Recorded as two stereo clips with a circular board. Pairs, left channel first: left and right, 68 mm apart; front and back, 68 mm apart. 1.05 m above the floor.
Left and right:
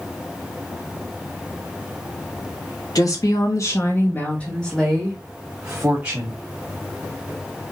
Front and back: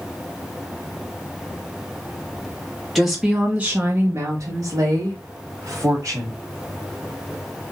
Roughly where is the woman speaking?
Left.